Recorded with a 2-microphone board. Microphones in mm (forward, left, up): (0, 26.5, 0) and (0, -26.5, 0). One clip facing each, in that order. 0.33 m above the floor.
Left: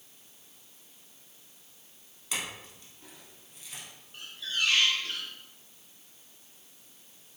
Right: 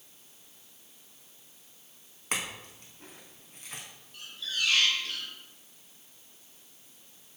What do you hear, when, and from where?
2.3 s a clink: 45° right (ahead or behind), 2 m
4.1 s a squeak: 35° left (ahead or behind), 2.5 m